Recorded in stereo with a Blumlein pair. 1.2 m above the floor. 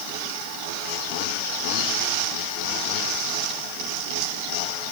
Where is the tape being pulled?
No tape being pulled in this recording.